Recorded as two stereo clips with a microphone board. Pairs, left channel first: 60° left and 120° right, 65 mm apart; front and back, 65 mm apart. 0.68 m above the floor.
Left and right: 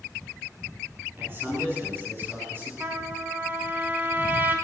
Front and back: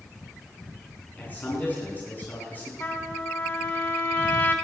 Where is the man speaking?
65° right, 9.5 m.